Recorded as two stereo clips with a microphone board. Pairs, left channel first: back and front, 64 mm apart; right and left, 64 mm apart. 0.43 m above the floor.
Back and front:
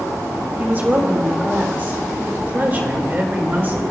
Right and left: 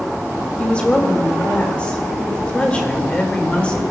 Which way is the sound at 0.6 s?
30° right.